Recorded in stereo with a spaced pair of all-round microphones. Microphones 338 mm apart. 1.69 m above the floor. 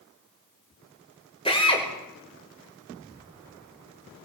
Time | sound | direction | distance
1.4 | a drill | 15° left (ahead or behind) | 5.5 m